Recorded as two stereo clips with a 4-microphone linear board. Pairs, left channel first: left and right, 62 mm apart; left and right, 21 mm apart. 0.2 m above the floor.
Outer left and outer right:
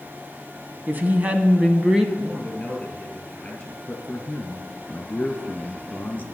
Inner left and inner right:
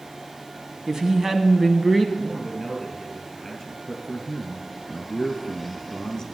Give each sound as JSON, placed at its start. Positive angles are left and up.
{"t": 0.9, "sound": "a woman speaking", "side_deg": -35, "distance_m": 1.2}
{"t": 2.2, "sound": "a man speaking", "side_deg": 15, "distance_m": 3.5}
{"t": 3.9, "sound": "a man speaking", "side_deg": 25, "distance_m": 2.5}